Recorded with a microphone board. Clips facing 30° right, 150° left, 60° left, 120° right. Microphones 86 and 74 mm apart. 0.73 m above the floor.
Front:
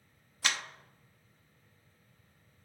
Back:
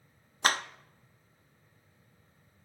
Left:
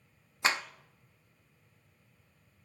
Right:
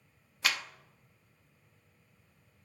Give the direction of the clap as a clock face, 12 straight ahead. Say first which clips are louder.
Back 6 dB, left 3 dB; 8 o'clock.